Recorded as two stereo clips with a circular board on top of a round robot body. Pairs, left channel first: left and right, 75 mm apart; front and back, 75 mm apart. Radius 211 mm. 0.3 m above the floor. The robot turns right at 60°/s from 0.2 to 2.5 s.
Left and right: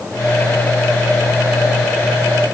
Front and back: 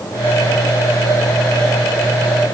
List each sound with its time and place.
Only background noise.